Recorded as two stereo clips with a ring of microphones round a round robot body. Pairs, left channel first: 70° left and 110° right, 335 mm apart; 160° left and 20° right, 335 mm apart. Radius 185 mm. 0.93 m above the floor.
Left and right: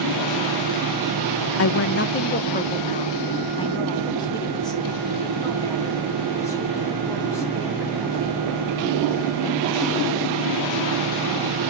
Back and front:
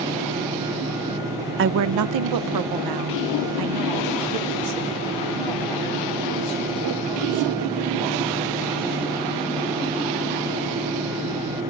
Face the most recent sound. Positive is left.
turn(degrees=-15)